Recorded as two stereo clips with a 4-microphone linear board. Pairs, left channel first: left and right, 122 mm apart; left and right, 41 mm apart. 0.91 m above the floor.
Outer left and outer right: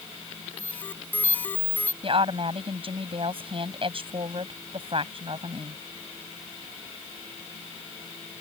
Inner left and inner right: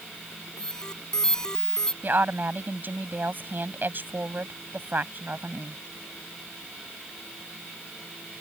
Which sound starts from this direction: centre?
An alarm, at 0.6 s.